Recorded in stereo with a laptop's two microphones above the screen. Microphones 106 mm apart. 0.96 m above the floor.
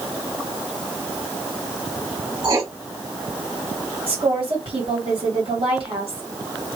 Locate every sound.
2.4 s writing: 45° right (ahead or behind), 1.8 m
4.1 s a woman speaking: 55° right (ahead or behind), 2 m